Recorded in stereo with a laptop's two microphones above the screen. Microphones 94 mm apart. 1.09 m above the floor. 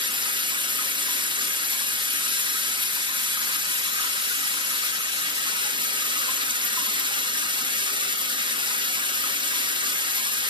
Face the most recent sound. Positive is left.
turn(degrees=-55)  # may be behind; listen again after turning